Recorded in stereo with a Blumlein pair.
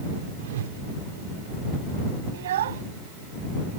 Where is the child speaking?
60° right.